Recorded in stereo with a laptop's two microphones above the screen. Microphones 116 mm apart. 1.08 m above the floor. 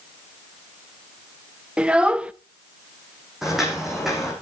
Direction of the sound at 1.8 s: 10° right (ahead or behind).